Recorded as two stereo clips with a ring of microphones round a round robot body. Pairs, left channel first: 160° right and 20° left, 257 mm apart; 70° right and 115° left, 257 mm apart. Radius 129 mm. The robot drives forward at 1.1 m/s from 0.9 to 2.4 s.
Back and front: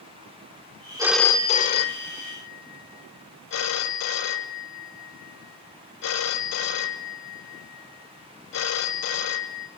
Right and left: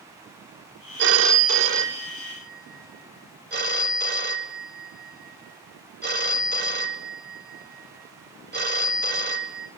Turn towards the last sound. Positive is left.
turn(degrees=165)